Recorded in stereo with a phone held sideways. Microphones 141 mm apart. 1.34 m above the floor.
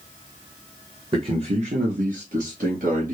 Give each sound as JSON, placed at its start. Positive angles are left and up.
{"t": 1.1, "sound": "a man speaking", "side_deg": -35, "distance_m": 1.0}